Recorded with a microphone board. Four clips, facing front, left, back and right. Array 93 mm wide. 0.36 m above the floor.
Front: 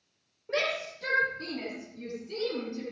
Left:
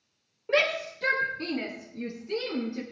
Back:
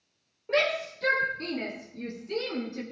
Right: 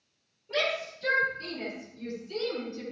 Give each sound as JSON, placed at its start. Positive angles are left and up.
{"t": 0.5, "sound": "a shout", "azimuth_deg": 105, "distance_m": 8.0}